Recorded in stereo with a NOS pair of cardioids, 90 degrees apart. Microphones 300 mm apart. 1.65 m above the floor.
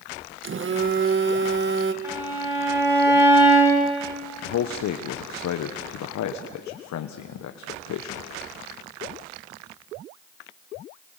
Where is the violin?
10° right, 10 m.